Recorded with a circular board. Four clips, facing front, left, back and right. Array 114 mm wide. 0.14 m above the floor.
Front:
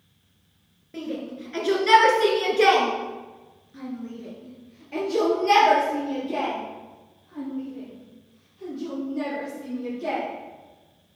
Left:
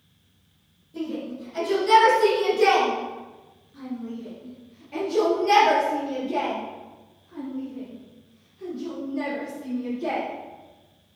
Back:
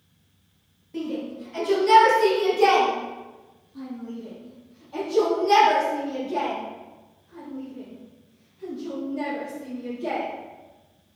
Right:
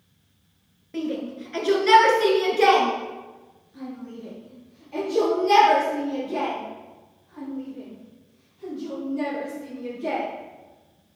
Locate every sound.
0.9 s a shout: 65° right, 1.9 m; by 10.2 s 40° left, 5 m